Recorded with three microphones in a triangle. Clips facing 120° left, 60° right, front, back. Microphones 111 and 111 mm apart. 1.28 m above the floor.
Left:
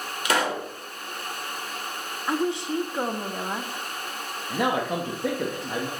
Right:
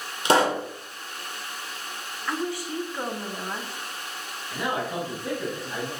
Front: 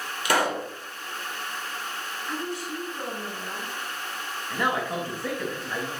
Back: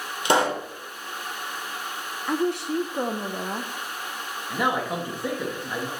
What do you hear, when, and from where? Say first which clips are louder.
0.2 s a pop: right 5 dB, back 3 dB; 120° right, 1.6 m
2.3 s a woman speaking: left 4 dB, back 9 dB; 175° right, 1.0 m
4.5 s a man speaking: left 4 dB, back 2 dB; 105° left, 1.7 m